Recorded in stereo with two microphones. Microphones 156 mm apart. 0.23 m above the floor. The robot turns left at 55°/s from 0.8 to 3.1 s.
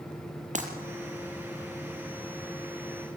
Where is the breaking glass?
50° right (ahead or behind), 3.5 m.